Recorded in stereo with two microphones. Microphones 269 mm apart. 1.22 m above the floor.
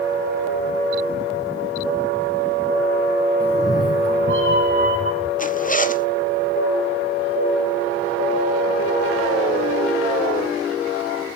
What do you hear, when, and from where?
3.4 s a cat meowing: 5° left (ahead or behind), 3 m; by 5.3 s 55° left (ahead or behind), 3 m
5.4 s a zipper: 30° left (ahead or behind), 0.7 m